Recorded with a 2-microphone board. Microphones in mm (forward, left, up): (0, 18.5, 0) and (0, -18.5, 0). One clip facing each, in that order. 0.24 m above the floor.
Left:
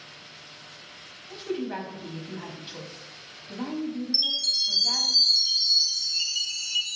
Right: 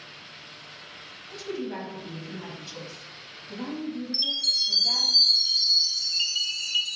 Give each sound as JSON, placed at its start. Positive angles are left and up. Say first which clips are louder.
{"t": 1.3, "sound": "a woman speaking", "louder": "left 2 dB", "side_deg": 25, "distance_m": 1.1}
{"t": 4.1, "sound": "a chime", "louder": "right 1 dB", "side_deg": -30, "distance_m": 1.3}